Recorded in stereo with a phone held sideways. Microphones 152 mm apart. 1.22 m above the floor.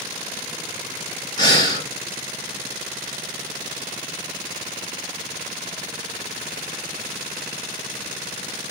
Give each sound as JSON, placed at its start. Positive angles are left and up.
{"t": 1.4, "sound": "breathing", "side_deg": 25, "distance_m": 1.5}